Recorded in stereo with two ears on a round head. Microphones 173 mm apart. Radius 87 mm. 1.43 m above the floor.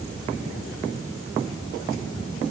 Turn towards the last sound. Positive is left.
No sound to turn to.